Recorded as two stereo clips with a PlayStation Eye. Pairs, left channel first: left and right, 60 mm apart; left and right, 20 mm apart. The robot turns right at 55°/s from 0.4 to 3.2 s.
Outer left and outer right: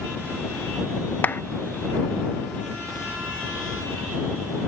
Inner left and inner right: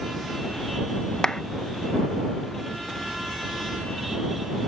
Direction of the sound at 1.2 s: 35° left (ahead or behind).